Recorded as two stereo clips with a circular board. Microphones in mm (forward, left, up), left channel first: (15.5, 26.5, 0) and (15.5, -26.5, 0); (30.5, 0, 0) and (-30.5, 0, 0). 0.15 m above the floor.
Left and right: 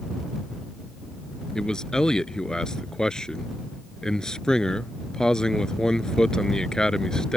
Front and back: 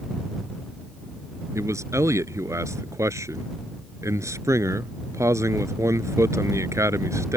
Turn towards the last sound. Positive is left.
turn(degrees=165)